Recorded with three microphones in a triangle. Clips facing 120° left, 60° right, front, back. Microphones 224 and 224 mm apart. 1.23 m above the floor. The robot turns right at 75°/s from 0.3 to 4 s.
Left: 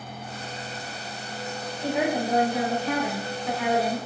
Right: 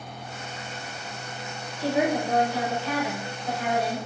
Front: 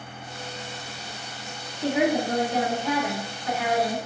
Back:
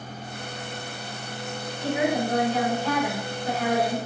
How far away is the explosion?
No explosion in this recording.